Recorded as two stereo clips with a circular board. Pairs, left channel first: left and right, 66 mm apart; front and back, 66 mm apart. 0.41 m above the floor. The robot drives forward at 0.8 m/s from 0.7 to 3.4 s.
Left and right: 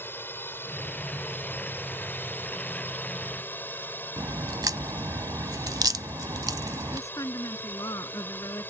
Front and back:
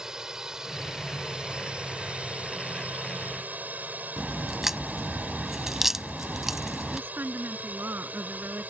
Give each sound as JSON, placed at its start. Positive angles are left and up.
{"t": 0.0, "sound": "a drone", "azimuth_deg": 105}
{"t": 4.2, "sound": "a crack", "azimuth_deg": -95}
{"t": 6.9, "sound": "a woman speaking", "azimuth_deg": 120}